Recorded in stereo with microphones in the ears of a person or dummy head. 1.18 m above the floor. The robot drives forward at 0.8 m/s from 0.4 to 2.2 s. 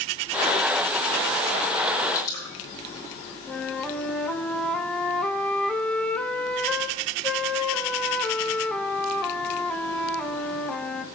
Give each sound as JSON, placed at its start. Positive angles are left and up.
{"t": 2.1, "sound": "dripping", "side_deg": 25, "distance_m": 5.5}
{"t": 3.5, "sound": "a flute", "side_deg": 0, "distance_m": 0.9}